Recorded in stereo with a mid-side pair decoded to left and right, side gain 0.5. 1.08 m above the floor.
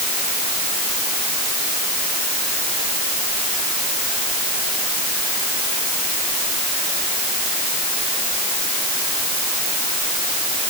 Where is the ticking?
No ticking in this recording.